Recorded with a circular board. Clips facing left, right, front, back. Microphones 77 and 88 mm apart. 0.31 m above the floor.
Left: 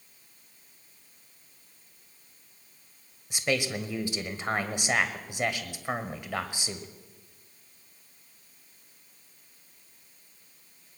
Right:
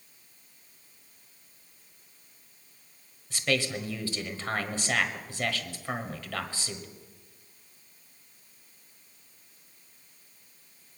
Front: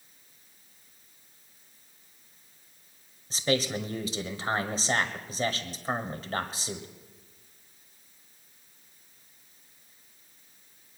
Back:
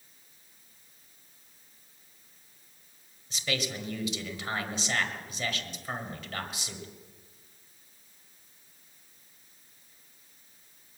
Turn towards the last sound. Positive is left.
turn(degrees=30)